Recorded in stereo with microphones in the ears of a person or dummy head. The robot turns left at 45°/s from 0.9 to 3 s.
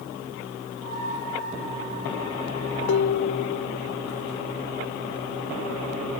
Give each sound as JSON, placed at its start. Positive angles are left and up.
{"t": 2.9, "sound": "dishes clattering", "side_deg": 80}